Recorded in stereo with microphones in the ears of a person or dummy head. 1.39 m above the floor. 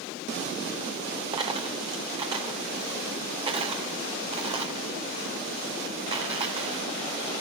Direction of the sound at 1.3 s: 25° right (ahead or behind).